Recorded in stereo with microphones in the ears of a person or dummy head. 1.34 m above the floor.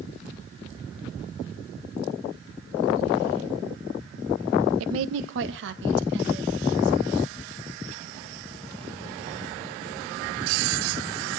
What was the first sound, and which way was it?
A woman speaking, 85° right.